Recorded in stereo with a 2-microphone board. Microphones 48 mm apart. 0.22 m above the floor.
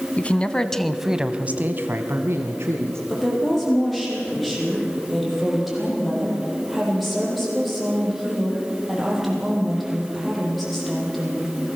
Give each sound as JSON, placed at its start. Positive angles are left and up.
{"t": 0.2, "sound": "a man speaking", "side_deg": 30, "distance_m": 1.5}
{"t": 3.1, "sound": "a woman speaking", "side_deg": 0, "distance_m": 8.5}